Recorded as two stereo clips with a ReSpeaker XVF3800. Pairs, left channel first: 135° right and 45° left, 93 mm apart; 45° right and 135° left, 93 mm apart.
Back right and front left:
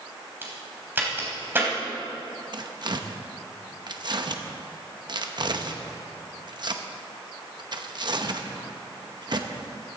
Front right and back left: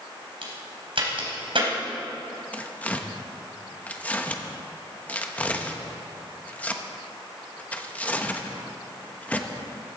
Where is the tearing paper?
25° left, 0.9 m.